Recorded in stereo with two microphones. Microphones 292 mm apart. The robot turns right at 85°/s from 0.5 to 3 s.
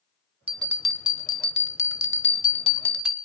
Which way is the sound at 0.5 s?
30° right.